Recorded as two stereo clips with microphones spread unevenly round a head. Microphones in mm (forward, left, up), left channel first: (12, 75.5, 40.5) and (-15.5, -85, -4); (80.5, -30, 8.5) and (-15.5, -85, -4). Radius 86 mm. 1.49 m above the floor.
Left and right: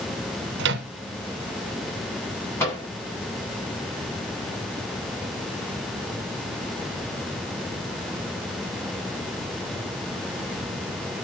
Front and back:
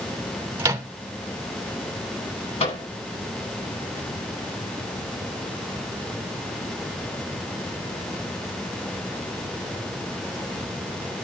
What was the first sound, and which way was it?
A microwave, 85° right.